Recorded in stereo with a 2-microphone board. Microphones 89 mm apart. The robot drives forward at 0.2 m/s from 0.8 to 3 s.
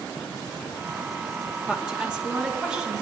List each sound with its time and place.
1.7 s a woman speaking: 15° right (ahead or behind), 2.5 m; by 3.0 s 10° right (ahead or behind), 2.5 m